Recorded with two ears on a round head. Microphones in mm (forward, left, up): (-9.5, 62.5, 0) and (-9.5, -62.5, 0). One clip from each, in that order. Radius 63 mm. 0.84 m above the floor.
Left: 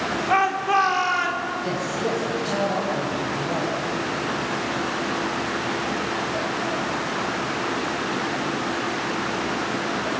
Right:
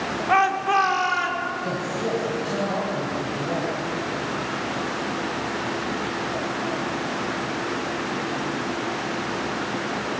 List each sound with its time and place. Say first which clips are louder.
0.3 s a shout: right 1 dB; 10° right (ahead or behind), 2 m; by 1.5 s 10° left (ahead or behind), 2.5 m
1.6 s a man speaking: left 1 dB; 30° left (ahead or behind), 4 m